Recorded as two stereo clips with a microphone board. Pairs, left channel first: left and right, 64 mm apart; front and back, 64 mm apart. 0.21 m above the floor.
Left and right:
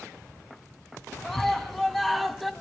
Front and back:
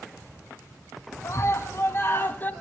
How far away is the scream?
About 2.5 m.